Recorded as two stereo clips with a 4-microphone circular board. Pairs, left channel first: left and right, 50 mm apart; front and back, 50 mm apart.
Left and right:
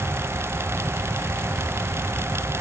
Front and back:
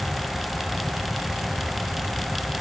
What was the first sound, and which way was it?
Only background noise.